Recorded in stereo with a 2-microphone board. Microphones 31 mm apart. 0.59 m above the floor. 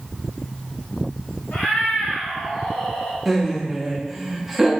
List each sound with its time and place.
1.5 s a cat meowing: 75° left (ahead or behind), 1.6 m; by 3.2 s 50° left (ahead or behind), 0.8 m
3.2 s laughter: 5° right (ahead or behind), 0.8 m